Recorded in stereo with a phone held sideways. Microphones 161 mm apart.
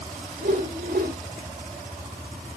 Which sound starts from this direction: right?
A whoosh, at 0.4 s.